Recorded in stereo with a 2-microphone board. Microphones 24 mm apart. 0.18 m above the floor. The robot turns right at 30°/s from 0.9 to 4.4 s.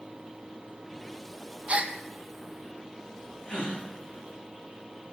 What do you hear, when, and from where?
1.7 s a gasp: 50° right (ahead or behind), 1.9 m; by 1.9 s 60° right (ahead or behind), 1.9 m
3.5 s a gasp: 45° left (ahead or behind), 8 m; by 3.8 s 35° left (ahead or behind), 8 m